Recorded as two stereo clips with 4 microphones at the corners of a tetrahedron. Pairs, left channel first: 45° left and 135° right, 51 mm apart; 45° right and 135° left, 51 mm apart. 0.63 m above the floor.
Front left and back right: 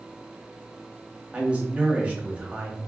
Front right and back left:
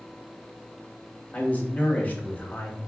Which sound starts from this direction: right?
A man speaking, at 1.3 s.